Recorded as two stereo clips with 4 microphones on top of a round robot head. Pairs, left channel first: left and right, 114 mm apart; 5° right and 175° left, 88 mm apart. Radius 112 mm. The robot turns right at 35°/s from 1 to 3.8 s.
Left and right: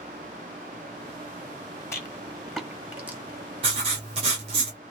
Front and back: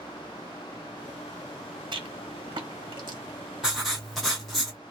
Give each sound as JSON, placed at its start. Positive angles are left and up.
{"t": 1.9, "sound": "a rattle", "azimuth_deg": 155, "distance_m": 1.6}
{"t": 3.6, "sound": "writing", "azimuth_deg": -100, "distance_m": 0.6}